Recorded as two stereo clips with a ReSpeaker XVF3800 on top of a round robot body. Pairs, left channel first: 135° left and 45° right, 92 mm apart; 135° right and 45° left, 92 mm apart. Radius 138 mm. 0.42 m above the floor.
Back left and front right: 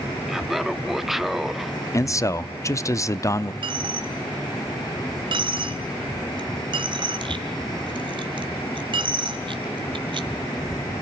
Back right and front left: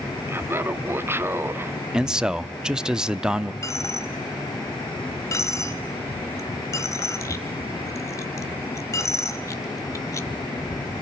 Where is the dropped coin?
75° right, 1.2 m.